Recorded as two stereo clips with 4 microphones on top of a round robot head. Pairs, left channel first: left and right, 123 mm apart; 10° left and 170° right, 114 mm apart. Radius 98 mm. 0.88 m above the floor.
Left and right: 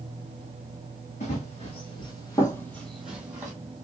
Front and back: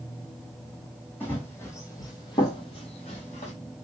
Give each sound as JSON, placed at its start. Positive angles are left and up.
{"t": 1.2, "sound": "running footsteps", "azimuth_deg": 75, "distance_m": 1.8}